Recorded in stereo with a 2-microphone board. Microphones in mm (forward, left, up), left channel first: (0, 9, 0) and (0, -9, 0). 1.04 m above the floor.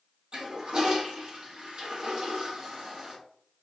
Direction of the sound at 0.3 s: 45° right (ahead or behind).